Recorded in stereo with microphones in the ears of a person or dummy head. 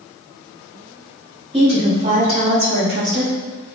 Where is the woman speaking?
25° right (ahead or behind), 1.4 m; by 3.4 s 70° right (ahead or behind), 1.2 m.